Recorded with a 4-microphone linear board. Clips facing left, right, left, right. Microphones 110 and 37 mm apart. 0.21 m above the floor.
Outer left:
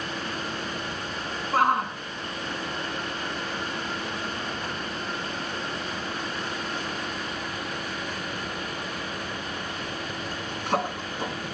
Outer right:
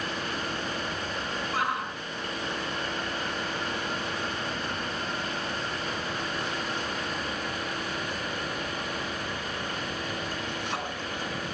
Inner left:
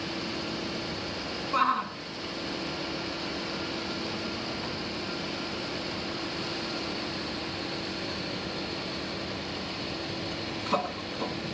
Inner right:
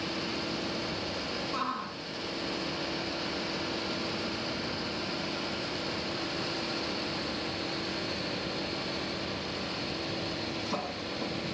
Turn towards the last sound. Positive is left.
turn(degrees=40)  # may be behind; listen again after turning